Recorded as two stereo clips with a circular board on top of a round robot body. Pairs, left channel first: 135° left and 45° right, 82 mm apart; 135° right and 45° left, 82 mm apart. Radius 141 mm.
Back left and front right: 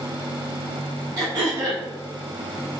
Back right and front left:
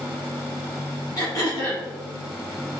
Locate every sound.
1.2 s throat clearing: 85° right, 1.2 m